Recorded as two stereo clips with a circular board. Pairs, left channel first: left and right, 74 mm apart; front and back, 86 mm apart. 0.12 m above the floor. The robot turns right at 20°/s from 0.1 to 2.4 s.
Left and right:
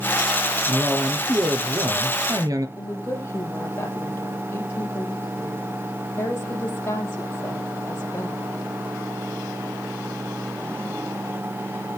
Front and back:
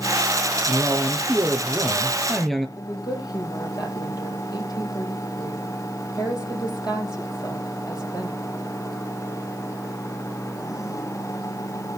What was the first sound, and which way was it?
A man speaking, 125° right.